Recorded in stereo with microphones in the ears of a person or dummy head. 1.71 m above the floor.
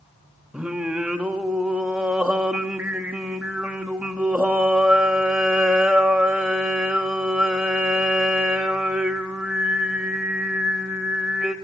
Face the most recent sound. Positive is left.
turn(degrees=-10)  # may be behind; listen again after turning